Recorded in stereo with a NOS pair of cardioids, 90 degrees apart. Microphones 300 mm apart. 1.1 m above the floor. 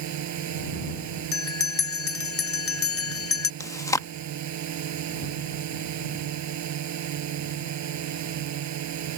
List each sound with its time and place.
0.0 s a drone: 65° right
1.3 s a bell: 50° left
3.6 s chewing: 10° left